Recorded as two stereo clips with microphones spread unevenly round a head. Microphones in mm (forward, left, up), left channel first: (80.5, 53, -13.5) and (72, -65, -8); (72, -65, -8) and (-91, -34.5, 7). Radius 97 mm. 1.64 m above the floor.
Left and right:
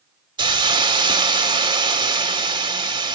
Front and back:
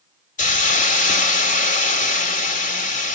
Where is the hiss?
50° right, 2.5 m.